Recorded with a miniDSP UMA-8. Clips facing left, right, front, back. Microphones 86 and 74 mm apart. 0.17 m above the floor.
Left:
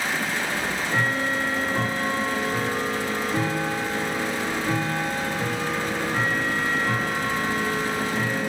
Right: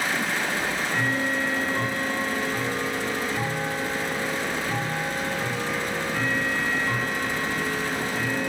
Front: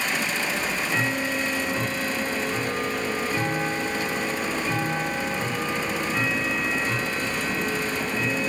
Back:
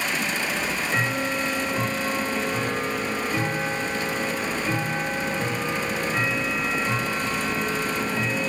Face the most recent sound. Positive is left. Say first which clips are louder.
# left 1 dB, even
turn(degrees=115)